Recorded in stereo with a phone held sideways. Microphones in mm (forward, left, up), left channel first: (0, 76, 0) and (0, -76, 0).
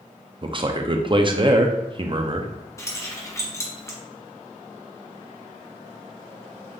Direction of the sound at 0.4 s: 35° right (ahead or behind).